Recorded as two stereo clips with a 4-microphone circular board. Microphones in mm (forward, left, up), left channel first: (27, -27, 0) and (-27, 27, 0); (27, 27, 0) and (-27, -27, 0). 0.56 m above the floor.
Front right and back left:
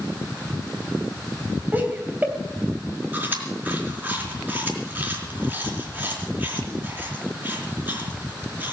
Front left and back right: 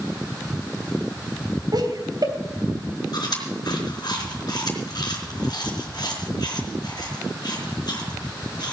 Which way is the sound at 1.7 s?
160° right.